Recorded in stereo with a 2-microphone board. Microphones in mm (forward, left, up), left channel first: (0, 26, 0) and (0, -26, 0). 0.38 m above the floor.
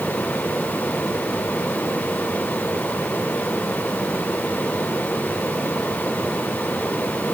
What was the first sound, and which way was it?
Only background noise.